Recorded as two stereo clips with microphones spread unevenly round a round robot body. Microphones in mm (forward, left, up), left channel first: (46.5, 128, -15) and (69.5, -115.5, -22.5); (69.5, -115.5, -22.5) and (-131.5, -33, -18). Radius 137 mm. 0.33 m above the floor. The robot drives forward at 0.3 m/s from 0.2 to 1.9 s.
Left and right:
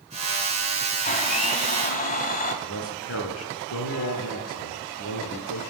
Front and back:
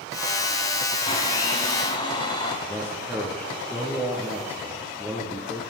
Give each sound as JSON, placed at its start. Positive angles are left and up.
{"t": 1.1, "sound": "a blender", "azimuth_deg": 40, "distance_m": 2.5}
{"t": 2.6, "sound": "a man speaking", "azimuth_deg": 80, "distance_m": 3.5}